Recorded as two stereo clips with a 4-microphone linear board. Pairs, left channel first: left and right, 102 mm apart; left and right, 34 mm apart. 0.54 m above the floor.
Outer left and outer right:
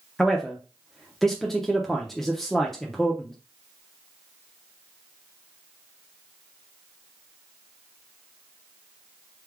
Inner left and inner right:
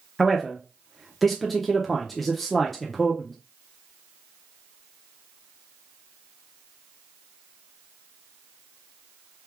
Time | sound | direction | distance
0.2 | a man speaking | 5° left (ahead or behind) | 0.6 m